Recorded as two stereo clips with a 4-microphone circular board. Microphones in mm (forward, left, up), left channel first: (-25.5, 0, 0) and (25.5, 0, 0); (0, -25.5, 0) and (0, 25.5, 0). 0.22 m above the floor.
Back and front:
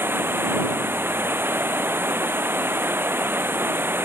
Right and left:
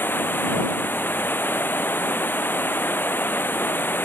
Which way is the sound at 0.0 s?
45° right.